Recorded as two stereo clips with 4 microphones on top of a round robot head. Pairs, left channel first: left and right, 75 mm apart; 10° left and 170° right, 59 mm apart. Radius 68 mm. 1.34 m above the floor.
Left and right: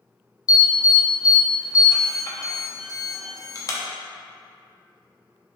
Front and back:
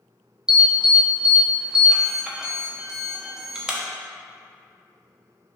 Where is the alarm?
115° left, 0.8 m.